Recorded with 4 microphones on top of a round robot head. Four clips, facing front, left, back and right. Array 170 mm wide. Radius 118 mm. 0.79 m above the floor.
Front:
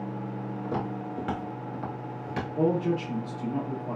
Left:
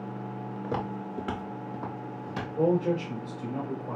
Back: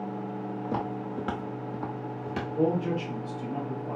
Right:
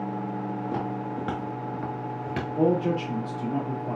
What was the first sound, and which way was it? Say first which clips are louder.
Footsteps: right 3 dB, even; 95° left.